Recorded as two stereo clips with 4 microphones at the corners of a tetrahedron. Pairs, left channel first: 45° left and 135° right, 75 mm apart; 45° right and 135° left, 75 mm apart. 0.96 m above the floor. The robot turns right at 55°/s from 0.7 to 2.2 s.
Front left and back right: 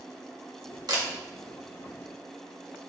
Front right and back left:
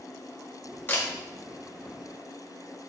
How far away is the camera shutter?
About 1.4 m.